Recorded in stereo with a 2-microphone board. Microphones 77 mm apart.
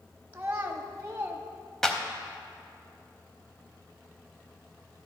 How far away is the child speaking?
About 0.7 m.